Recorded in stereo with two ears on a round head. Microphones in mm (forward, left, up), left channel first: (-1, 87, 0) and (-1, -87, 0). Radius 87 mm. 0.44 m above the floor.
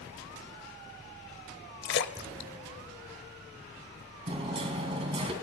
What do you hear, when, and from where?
1.8 s a splash: 60° left (ahead or behind), 0.9 m
4.3 s hammering: 30° right (ahead or behind), 3 m